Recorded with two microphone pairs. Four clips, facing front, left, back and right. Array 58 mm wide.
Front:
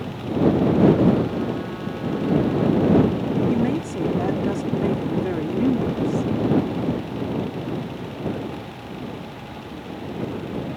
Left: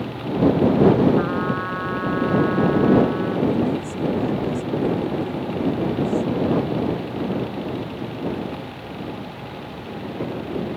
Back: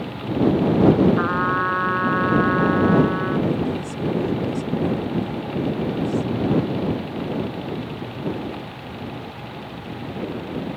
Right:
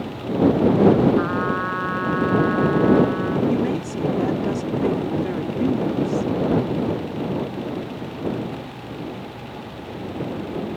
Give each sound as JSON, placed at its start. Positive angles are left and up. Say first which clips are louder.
{"t": 1.2, "sound": "a trumpet", "louder": "right 1 dB, back 4 dB", "azimuth_deg": -170}
{"t": 3.5, "sound": "a woman speaking", "louder": "even, front 2 dB", "azimuth_deg": -30}